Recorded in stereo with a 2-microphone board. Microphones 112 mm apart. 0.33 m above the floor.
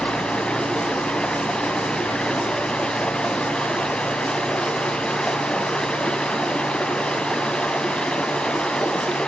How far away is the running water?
About 0.8 m.